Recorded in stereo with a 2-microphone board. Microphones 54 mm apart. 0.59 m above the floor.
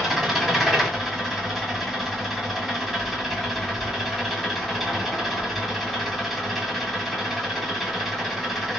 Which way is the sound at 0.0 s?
Centre (ahead or behind).